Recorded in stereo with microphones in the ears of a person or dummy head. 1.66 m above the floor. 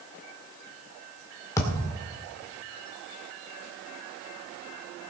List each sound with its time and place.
1.6 s a thud: 15° left (ahead or behind), 2.5 m